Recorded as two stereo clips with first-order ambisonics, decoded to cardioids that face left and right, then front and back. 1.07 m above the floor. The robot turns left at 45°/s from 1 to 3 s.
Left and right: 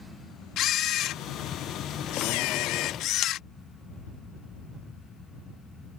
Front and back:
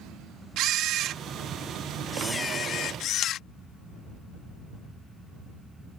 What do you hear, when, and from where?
0.6 s a camera shutter: 135° left; by 3.4 s 45° left